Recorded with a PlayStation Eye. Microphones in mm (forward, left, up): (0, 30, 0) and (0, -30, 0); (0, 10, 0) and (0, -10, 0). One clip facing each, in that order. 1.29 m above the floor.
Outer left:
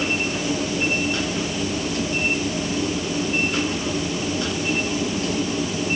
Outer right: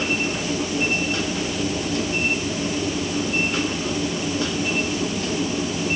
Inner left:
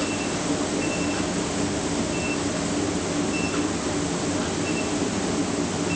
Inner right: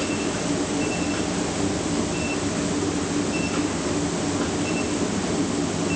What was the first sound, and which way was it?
Only background noise.